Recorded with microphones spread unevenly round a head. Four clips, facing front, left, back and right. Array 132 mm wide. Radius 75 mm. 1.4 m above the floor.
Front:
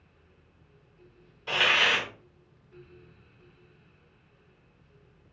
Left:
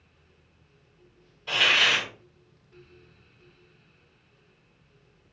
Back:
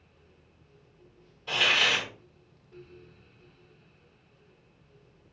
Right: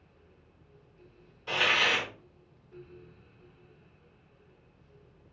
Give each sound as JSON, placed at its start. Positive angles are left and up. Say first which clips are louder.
{"t": 1.5, "sound": "a hiss", "louder": "left 2 dB, front 2 dB", "azimuth_deg": 10, "distance_m": 1.5}